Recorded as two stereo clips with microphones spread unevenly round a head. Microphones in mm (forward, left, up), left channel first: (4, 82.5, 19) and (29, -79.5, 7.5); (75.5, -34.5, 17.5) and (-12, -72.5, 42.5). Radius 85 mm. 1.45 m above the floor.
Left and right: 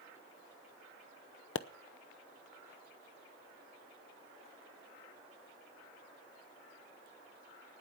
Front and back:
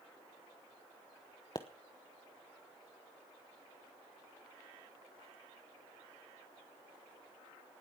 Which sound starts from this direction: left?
A pop, at 1.6 s.